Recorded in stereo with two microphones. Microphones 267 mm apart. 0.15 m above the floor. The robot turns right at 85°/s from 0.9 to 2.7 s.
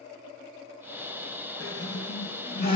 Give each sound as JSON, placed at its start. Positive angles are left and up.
{"t": 1.6, "sound": "a squeak", "azimuth_deg": 65, "distance_m": 1.6}